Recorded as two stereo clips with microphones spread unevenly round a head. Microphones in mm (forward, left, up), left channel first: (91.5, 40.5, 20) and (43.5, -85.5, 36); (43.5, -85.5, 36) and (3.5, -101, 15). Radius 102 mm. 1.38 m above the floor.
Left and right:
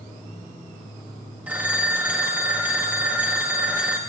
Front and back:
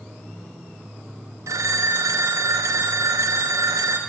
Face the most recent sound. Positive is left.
turn(degrees=170)